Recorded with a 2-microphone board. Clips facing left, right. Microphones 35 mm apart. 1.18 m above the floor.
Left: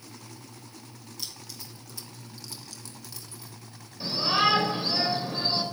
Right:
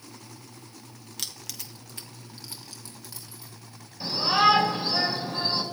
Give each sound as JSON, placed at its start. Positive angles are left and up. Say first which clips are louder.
{"t": 1.2, "sound": "keys jangling", "louder": "right 3 dB", "side_deg": -60, "distance_m": 0.7}
{"t": 4.0, "sound": "a shout", "louder": "right 3 dB", "side_deg": 10, "distance_m": 3.0}